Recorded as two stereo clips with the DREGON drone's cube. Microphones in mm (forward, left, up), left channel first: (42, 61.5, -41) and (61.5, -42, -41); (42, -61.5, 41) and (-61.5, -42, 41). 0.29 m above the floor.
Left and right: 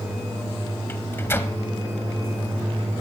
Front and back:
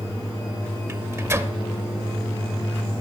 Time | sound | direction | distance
0.9 | a microwave | 135° left | 0.8 m